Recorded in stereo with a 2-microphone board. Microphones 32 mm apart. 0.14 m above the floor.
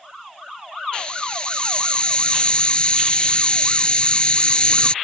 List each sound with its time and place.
0.9 s a hiss: 30° left (ahead or behind)